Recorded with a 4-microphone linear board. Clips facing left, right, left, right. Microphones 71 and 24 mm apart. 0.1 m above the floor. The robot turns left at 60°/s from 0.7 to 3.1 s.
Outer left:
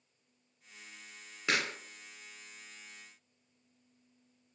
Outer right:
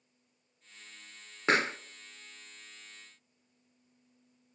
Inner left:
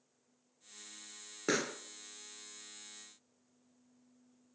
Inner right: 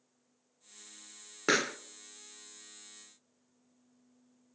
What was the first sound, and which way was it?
A pop, 35° right (ahead or behind).